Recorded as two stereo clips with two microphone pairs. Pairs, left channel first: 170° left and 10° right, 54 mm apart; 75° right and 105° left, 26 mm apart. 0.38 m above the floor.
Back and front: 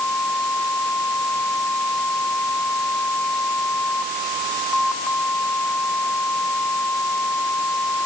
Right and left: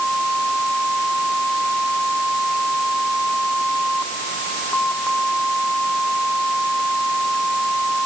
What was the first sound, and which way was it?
Only background noise.